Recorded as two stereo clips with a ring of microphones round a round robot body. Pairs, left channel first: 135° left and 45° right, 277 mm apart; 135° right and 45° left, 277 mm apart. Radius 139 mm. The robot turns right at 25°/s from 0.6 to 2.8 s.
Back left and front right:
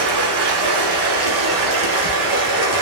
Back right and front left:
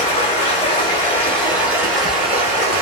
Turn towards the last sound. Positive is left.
turn(degrees=-10)